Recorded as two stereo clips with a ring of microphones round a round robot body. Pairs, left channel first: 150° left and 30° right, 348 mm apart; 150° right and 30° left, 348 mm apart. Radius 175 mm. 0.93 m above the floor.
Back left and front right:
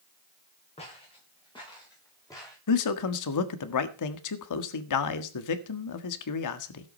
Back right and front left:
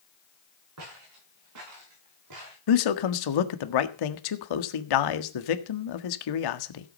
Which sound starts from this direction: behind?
A man speaking, at 2.7 s.